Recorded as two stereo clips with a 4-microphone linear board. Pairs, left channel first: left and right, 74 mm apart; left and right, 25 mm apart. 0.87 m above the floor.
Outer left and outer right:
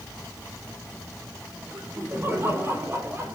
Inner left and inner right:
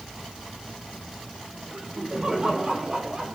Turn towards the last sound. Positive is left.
turn(degrees=-40)  # may be behind; listen again after turning